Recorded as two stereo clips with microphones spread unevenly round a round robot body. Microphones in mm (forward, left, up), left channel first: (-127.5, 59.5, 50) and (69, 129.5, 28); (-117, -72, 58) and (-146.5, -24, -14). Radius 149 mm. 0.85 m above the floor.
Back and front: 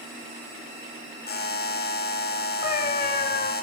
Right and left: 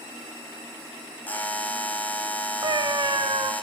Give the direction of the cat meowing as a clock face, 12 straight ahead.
6 o'clock.